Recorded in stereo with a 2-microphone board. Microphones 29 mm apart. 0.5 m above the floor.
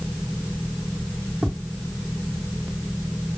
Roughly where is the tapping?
Right.